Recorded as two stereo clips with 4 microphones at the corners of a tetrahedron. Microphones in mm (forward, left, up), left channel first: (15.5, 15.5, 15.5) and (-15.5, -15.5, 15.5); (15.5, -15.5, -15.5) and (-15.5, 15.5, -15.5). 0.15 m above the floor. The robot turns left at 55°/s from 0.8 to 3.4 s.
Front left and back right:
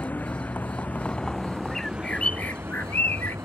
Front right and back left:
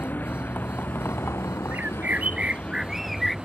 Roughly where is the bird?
Behind left.